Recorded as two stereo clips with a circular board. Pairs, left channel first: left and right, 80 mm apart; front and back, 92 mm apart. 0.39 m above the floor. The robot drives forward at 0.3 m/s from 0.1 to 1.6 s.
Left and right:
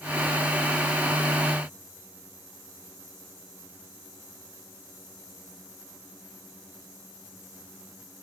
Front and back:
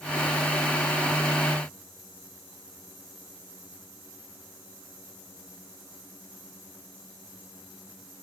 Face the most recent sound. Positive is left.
No sound to turn to.